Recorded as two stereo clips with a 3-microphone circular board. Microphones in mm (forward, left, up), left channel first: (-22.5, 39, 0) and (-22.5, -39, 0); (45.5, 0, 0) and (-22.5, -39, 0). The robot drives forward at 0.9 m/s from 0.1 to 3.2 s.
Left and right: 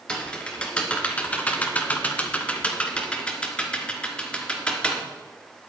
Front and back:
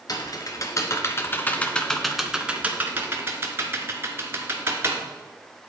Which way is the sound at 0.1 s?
15° left.